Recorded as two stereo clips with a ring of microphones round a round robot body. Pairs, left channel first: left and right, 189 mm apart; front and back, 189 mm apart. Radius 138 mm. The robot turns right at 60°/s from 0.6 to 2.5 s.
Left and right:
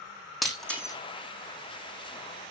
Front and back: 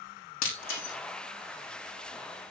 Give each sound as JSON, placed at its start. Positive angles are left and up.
{"t": 0.4, "sound": "breaking glass", "azimuth_deg": 0, "distance_m": 5.0}